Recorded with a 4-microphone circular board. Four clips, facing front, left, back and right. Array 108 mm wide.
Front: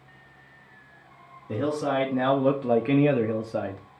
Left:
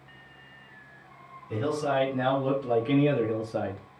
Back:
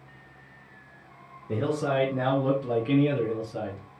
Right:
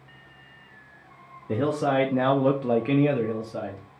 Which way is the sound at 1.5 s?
90° right.